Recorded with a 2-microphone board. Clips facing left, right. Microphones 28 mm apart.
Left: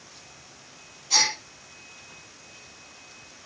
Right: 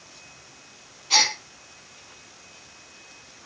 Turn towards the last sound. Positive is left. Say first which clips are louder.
# right 3 dB
turn(degrees=-35)  # may be behind; listen again after turning